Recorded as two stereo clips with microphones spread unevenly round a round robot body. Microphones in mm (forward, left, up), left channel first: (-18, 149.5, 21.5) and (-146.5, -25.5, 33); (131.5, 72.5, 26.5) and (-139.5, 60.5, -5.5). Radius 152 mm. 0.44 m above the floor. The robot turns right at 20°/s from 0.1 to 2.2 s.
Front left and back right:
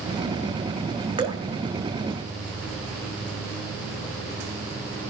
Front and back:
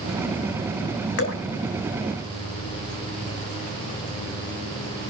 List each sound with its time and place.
1.2 s dripping: 55° right, 1.8 m; by 1.4 s 50° right, 1.8 m